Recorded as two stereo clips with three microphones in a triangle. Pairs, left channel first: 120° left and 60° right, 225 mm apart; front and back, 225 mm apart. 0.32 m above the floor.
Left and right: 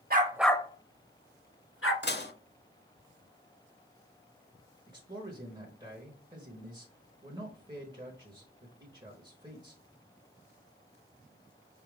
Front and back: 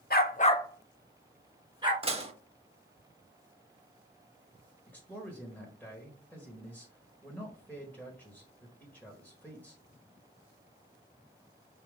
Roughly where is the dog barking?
Ahead right.